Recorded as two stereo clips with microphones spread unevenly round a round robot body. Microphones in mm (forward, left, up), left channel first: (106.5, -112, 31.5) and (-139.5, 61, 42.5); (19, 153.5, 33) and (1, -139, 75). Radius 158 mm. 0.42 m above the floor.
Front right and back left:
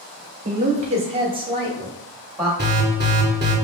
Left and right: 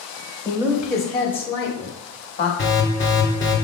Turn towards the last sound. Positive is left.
turn(degrees=95)